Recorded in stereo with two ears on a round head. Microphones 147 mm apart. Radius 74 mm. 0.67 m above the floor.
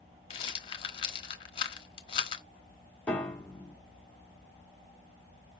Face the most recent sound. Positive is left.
turn(degrees=10)  # may be behind; listen again after turning